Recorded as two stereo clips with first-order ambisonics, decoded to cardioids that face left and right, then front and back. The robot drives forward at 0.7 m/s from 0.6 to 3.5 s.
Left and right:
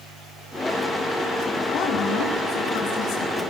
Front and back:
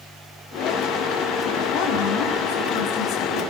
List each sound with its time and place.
1.7 s a woman speaking: 30° left, 6.5 m; by 3.4 s 35° left, 5.5 m